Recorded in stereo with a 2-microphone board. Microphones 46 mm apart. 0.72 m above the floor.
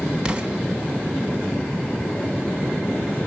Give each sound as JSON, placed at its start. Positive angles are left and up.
{"t": 0.2, "sound": "an explosion", "side_deg": -25, "distance_m": 1.3}